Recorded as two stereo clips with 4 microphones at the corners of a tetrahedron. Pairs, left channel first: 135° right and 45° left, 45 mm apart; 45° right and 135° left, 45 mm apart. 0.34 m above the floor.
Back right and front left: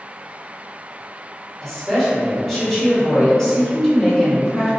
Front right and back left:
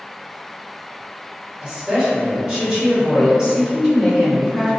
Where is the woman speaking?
Straight behind, 1.2 m.